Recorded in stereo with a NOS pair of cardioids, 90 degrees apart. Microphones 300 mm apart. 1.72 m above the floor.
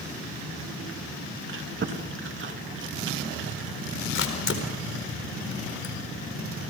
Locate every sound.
1.5 s chewing: 40° right, 2.5 m
4.2 s a camera shutter: 45° left, 4.5 m